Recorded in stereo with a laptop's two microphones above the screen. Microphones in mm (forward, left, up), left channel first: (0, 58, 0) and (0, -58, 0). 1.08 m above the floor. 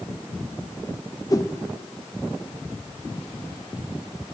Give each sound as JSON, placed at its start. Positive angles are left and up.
{"t": 1.3, "sound": "a whoosh", "side_deg": 30, "distance_m": 1.1}